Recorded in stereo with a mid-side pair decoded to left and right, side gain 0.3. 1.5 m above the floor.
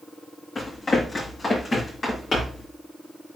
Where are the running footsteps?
40° left, 6 m; by 2.7 s 55° left, 6 m.